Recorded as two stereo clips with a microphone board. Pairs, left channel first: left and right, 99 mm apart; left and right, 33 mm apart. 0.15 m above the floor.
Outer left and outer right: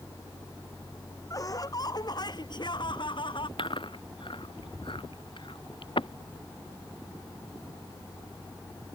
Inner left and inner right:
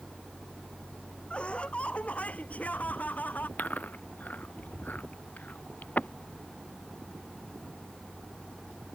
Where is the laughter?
35° left (ahead or behind); by 3.5 s 55° left (ahead or behind).